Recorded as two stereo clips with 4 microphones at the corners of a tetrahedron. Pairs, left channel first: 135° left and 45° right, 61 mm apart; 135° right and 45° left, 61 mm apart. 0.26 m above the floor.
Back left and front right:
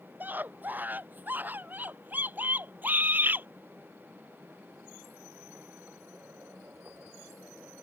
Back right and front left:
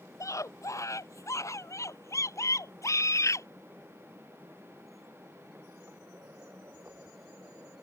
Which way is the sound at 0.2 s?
105° right.